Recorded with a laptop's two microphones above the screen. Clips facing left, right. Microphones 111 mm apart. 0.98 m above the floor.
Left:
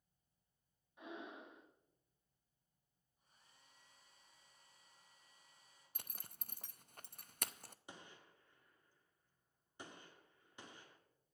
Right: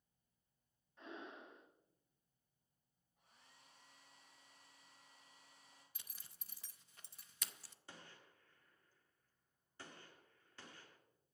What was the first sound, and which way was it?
Breathing, 15° left (ahead or behind).